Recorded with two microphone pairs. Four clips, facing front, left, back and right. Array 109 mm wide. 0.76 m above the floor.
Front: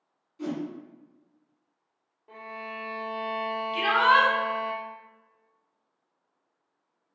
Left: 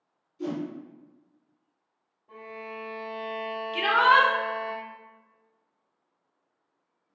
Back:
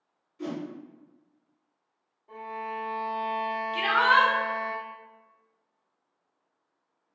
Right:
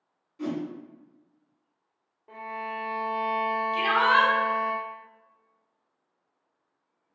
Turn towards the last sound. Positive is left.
turn(degrees=70)